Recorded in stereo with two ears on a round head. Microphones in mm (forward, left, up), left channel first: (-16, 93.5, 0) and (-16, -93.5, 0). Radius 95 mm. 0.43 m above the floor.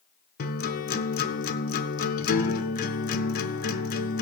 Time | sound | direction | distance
0.4 | a guitar | 45° left (ahead or behind) | 0.7 m